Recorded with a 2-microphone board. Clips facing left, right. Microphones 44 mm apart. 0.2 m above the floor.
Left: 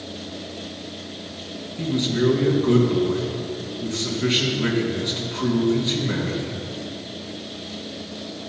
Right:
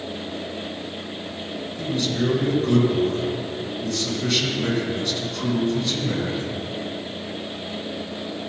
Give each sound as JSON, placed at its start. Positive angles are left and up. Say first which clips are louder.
{"t": 1.8, "sound": "a man speaking", "louder": "left 3 dB", "side_deg": 25, "distance_m": 2.0}